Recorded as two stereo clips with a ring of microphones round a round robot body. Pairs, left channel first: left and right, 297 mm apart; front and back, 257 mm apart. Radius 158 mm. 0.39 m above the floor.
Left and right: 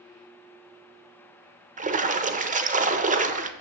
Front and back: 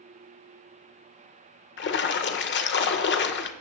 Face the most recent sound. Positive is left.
turn(degrees=-30)